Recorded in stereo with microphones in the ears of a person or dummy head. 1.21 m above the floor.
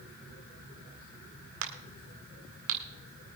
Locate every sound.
1.6 s a crack: 70° right (ahead or behind), 1.8 m